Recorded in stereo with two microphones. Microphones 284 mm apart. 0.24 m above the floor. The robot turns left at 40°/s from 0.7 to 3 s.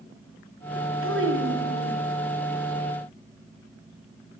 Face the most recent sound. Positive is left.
turn(degrees=-175)